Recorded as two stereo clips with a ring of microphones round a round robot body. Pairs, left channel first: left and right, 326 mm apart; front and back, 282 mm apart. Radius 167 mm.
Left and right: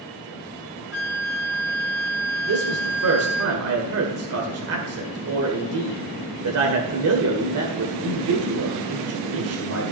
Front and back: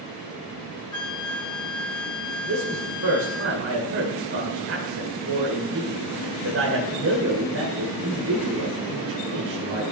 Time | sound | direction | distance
0.9 | a flute | 35° left | 1.1 m
2.5 | a man speaking | 135° right | 1.9 m